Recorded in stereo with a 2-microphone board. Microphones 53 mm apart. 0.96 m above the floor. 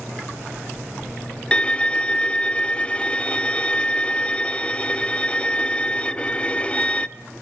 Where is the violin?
20° left (ahead or behind), 0.6 m.